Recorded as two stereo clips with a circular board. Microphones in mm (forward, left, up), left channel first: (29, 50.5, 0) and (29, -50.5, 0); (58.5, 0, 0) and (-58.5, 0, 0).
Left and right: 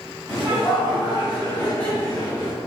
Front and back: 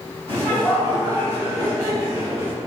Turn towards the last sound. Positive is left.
turn(degrees=105)